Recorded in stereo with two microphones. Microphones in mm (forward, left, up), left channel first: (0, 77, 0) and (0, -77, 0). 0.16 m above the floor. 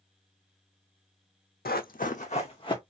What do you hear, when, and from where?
1.6 s running footsteps: 85° left, 0.6 m; by 2.8 s 30° left (ahead or behind), 1.0 m